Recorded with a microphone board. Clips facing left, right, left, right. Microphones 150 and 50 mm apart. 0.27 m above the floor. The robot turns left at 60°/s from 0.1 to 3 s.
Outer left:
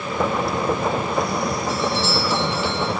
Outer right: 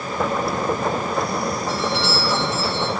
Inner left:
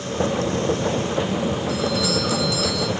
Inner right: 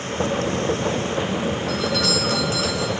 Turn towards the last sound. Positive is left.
turn(degrees=-160)